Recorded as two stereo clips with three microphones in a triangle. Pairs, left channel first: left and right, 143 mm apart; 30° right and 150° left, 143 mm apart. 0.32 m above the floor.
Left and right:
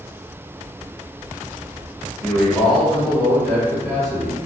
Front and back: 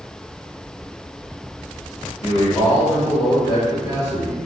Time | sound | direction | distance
2.2 | a man speaking | 5° left | 1.2 m